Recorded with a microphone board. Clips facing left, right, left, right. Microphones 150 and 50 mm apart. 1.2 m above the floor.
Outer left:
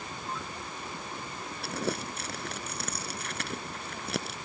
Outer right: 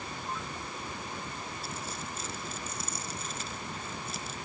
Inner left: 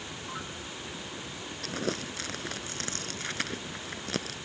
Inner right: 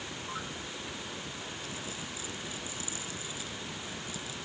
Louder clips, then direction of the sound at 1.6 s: Outer left 7 dB, inner left 7 dB; 70° left (ahead or behind).